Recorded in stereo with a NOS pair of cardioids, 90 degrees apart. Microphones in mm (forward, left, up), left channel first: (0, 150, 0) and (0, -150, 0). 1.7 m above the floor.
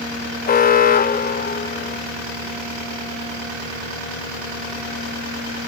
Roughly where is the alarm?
Ahead left.